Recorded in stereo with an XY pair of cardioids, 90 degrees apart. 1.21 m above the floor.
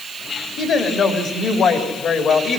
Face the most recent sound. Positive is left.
turn(degrees=65)